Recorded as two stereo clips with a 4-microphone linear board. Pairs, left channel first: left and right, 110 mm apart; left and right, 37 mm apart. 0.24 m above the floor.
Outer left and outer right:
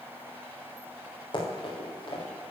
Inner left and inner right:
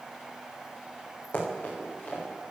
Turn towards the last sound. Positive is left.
turn(degrees=45)  # may be behind; listen again after turning